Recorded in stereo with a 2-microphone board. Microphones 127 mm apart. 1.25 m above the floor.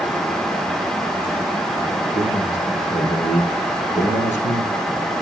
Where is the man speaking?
65° left (ahead or behind), 4 m.